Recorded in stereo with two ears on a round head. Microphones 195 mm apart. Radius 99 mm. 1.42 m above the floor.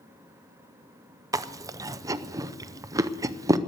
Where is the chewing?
15° right (ahead or behind), 0.5 m.